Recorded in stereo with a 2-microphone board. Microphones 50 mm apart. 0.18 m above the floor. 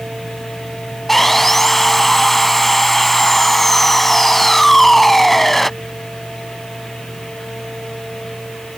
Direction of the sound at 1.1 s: 5° left (ahead or behind).